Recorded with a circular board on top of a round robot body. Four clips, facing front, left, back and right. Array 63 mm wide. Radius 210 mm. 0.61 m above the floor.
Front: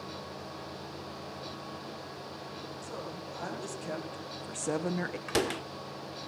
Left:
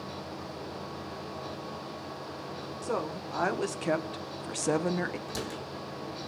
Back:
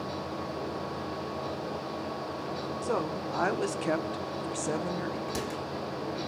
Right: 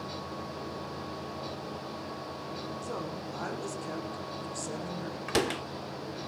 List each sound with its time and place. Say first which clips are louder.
2.8 s a woman speaking: left 8 dB, back 12 dB; 150° left, 3 m; by 5.2 s 55° left, 1.4 m
5.3 s a door slam: right 7 dB, front 3 dB; 55° right, 1.7 m